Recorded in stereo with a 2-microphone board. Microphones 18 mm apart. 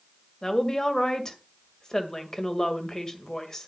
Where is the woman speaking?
35° left (ahead or behind), 2 m.